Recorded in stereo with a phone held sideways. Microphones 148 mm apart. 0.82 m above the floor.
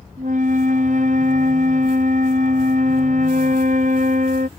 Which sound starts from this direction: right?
A flute, at 0.2 s.